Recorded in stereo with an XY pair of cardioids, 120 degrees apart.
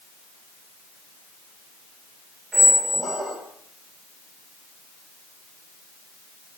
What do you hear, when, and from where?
2.5 s a squeak: 35° right, 2.0 m